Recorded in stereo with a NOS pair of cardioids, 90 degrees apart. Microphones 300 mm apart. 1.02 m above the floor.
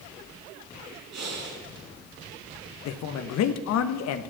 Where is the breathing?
65° right, 3 m.